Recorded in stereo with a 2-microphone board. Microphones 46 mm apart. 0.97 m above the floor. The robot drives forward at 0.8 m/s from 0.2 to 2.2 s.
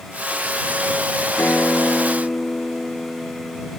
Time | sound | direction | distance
1.4 | a guitar | 55° left (ahead or behind) | 0.9 m